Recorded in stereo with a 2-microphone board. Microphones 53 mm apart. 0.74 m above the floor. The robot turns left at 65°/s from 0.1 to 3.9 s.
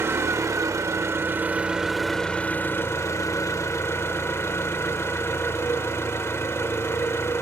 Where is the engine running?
55° right, 0.9 m; by 7.4 s 60° left, 0.9 m.